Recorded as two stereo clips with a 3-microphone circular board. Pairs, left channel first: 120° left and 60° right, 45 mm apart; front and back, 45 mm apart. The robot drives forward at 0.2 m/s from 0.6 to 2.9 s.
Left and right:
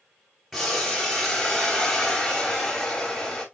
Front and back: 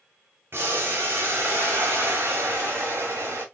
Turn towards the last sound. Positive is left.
turn(degrees=-150)